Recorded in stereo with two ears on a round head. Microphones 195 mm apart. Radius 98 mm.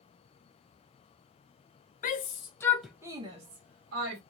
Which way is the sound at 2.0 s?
40° left (ahead or behind).